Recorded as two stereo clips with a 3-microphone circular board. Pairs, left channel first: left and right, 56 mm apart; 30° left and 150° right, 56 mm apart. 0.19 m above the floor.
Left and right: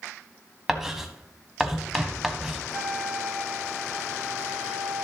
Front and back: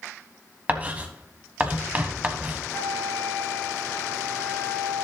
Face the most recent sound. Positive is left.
turn(degrees=5)